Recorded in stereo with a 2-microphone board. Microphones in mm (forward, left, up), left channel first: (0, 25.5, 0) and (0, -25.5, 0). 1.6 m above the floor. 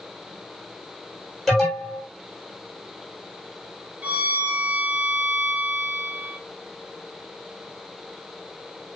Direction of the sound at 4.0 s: 25° right (ahead or behind).